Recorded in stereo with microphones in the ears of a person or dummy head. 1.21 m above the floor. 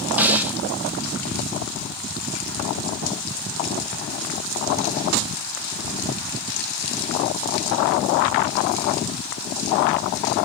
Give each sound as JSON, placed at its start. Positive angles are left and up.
{"t": 0.2, "sound": "a snare drum", "side_deg": -5, "distance_m": 0.9}